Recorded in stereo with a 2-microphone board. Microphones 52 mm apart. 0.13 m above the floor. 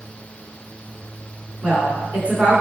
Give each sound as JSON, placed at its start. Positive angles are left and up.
{"t": 1.6, "sound": "a woman speaking", "side_deg": -30, "distance_m": 1.3}